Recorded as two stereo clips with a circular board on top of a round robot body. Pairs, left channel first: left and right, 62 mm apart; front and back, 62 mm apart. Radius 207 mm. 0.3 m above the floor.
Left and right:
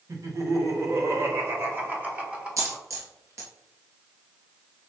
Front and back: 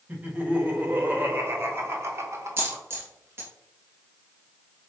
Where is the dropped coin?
125° right, 2 m.